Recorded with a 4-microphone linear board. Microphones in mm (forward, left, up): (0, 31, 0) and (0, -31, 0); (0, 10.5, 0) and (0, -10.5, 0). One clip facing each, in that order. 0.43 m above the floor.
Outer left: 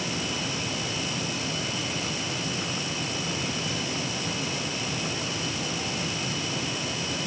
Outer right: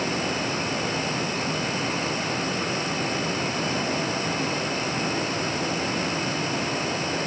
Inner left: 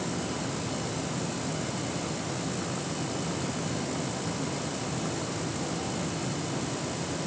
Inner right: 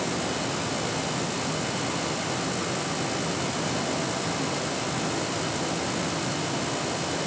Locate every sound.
Only background noise.